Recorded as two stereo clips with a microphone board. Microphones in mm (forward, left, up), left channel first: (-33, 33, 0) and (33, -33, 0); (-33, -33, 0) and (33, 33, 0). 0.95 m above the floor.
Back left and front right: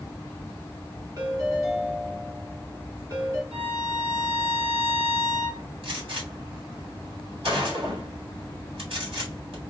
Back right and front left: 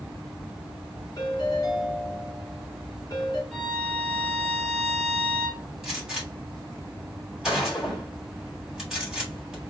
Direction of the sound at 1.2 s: 85° right.